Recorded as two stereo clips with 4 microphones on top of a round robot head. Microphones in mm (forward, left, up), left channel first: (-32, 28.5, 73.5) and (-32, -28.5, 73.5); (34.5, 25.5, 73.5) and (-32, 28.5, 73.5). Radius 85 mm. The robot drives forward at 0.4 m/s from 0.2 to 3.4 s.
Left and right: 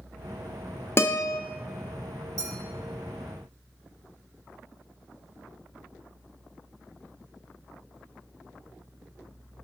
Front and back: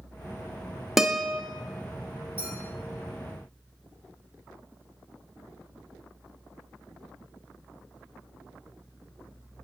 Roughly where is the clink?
Behind right.